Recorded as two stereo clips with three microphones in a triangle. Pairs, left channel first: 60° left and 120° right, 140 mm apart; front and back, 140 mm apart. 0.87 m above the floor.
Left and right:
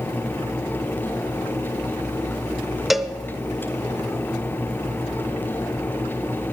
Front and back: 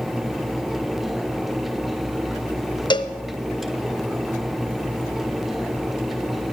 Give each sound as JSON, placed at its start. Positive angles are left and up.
{"t": 2.9, "sound": "a cowbell", "azimuth_deg": -35, "distance_m": 0.6}